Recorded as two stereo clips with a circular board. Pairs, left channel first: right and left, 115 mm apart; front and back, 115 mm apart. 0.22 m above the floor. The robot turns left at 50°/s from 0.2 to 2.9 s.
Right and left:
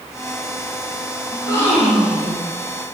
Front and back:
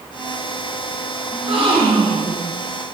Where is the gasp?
140° right, 3 m; by 2.5 s 160° left, 3 m.